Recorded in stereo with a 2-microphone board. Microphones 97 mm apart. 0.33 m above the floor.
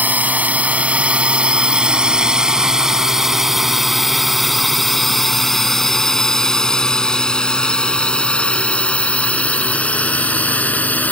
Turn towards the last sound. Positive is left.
turn(degrees=15)  # may be behind; listen again after turning